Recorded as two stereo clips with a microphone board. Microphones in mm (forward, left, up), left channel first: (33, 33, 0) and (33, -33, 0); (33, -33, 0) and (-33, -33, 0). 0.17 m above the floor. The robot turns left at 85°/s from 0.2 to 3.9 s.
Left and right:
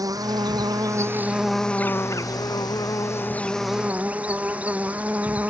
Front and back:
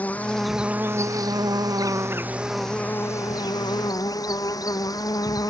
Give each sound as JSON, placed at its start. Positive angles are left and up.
{"t": 0.0, "sound": "an insect", "azimuth_deg": -70}